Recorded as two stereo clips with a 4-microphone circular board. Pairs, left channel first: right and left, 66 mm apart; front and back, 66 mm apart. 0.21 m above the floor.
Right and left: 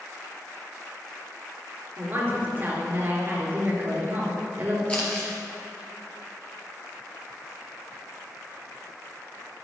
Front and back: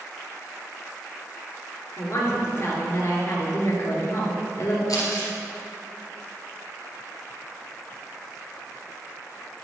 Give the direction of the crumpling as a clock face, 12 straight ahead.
1 o'clock.